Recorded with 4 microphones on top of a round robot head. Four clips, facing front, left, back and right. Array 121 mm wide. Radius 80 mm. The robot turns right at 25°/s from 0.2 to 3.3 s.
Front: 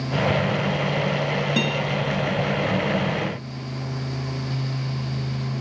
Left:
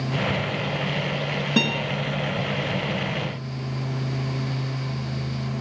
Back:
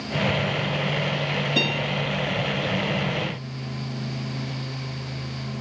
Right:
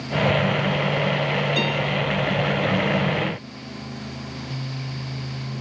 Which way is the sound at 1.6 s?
75° left.